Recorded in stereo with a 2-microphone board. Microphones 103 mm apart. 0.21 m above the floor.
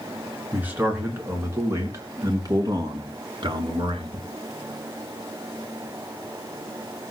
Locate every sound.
0.5 s a man speaking: 15° right (ahead or behind), 3.5 m; by 4.3 s 55° right (ahead or behind), 3.5 m